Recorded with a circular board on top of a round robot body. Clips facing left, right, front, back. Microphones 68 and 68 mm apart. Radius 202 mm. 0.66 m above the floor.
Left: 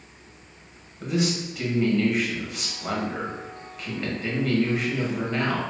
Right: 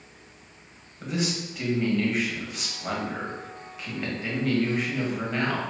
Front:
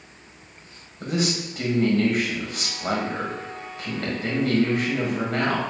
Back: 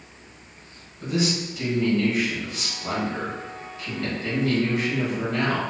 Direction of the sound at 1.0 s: Straight ahead.